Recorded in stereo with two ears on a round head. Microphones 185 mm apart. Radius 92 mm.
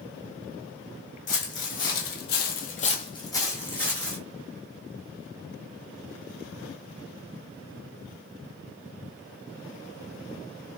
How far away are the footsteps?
About 1.1 m.